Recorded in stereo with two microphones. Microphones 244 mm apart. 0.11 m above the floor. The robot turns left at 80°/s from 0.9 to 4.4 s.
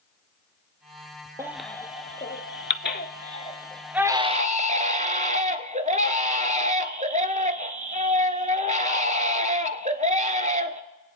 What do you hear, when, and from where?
1.4 s a baby crying: 165° right, 0.6 m; by 10.8 s 45° right, 0.6 m